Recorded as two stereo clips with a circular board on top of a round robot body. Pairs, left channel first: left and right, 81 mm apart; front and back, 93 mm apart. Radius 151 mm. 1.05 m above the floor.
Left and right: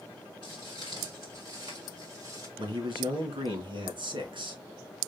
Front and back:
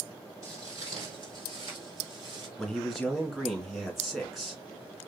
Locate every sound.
0.4 s footsteps: 125° right, 1.1 m; by 2.5 s 135° right, 2 m
2.6 s a man speaking: 90° right, 2.5 m